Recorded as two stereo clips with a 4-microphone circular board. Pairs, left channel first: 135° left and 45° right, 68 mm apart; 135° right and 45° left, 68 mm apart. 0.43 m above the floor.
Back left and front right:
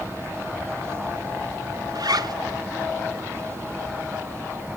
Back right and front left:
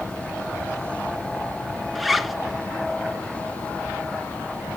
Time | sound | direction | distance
1.9 | a zipper | 45° right | 1.0 m